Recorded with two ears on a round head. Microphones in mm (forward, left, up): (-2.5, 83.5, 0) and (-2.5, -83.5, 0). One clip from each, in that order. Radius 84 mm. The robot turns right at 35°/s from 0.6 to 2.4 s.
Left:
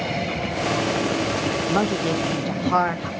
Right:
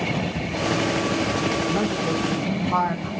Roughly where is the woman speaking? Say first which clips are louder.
Left 2 dB; left.